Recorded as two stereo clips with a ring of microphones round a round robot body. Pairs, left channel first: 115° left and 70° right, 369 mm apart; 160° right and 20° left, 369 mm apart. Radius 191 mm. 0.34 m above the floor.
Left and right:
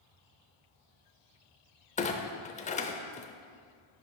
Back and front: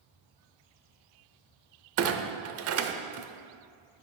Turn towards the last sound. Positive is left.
turn(degrees=50)